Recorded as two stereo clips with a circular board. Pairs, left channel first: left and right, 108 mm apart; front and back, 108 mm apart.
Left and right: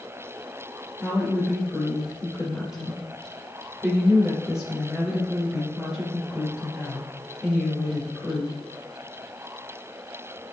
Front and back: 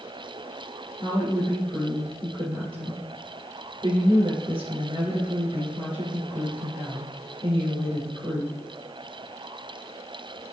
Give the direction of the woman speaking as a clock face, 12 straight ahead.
6 o'clock.